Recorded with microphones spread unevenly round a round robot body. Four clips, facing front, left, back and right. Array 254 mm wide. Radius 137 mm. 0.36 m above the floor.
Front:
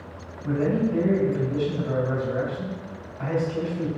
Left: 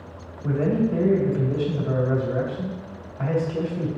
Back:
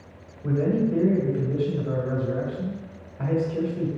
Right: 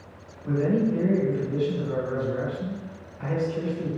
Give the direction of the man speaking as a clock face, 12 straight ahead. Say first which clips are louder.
Left 1 dB, even; 8 o'clock.